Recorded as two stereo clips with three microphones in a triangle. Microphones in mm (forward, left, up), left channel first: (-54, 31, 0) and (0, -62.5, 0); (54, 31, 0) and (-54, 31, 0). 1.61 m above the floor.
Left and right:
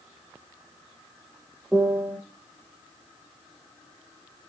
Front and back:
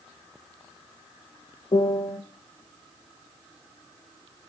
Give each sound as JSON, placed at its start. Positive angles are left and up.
{"t": 1.7, "sound": "a piano", "azimuth_deg": 20, "distance_m": 0.9}